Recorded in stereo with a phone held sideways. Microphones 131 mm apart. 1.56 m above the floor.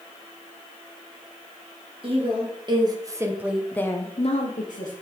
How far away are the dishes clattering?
I don't hear dishes clattering.